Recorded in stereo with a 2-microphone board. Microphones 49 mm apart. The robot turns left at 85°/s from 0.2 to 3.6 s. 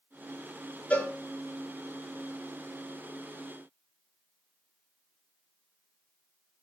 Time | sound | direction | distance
0.9 | a cowbell | 30° left (ahead or behind) | 5 m